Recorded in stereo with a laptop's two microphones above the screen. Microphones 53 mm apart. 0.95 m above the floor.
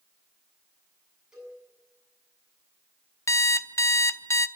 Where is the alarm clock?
60° left (ahead or behind), 0.6 m.